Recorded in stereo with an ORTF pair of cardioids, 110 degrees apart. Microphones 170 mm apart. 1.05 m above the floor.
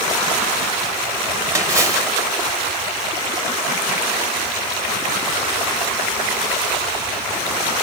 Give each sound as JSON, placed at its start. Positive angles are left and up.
{"t": 1.6, "sound": "a splash", "azimuth_deg": -20, "distance_m": 2.0}